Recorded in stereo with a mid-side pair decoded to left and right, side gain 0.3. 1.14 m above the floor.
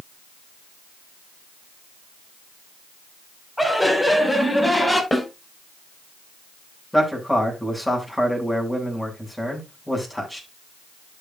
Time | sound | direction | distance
3.6 | laughter | 5° left | 6.5 m
5.1 | a snare drum | 25° left | 6.5 m
6.9 | a man speaking | 5° left | 8.5 m